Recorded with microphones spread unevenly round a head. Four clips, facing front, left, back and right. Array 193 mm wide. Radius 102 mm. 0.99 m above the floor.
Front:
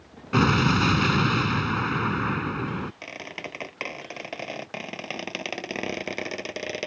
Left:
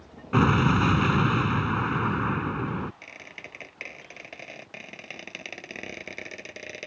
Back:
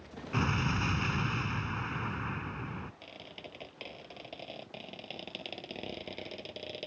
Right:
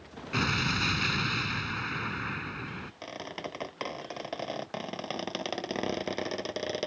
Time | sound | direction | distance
0.3 | an explosion | 35° left | ?
3.0 | a squeak | 30° right | ?